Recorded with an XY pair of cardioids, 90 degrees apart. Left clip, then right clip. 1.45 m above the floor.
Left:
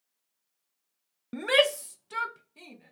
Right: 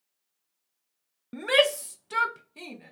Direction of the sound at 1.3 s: 25° left.